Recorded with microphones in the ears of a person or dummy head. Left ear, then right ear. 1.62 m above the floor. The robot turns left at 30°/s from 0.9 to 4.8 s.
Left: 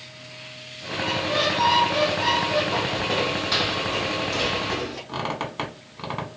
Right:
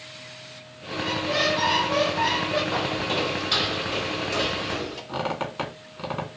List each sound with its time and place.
1.0 s a squeak: 95° right, 0.7 m; by 2.6 s 140° right, 0.7 m
2.7 s footsteps: 20° right (ahead or behind), 1.7 m; by 5.0 s 20° left (ahead or behind), 2 m
5.1 s a squeak: 5° left (ahead or behind), 1.0 m